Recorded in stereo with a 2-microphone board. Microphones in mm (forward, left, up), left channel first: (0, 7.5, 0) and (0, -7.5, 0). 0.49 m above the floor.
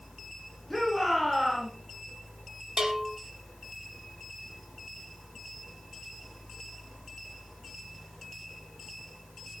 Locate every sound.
0.7 s a shout: 10° left (ahead or behind), 7 m; by 1.7 s centre (ahead or behind), 7 m
2.8 s a bell: 40° right (ahead or behind), 3.5 m